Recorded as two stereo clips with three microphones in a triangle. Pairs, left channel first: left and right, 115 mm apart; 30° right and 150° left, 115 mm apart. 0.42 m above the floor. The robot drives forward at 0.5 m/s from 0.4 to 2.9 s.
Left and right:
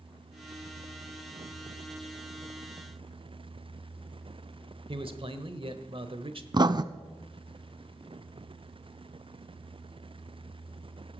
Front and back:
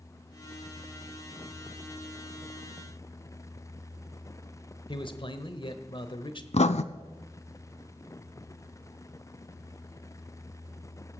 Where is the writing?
40° right, 0.6 m.